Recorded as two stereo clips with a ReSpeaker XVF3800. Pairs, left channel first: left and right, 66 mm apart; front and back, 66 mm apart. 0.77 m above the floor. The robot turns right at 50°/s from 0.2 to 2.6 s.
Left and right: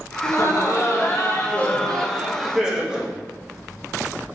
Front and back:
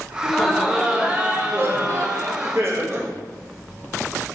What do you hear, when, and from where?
0.2 s laughter: 80° left, 0.7 m; by 3.1 s 165° right, 0.7 m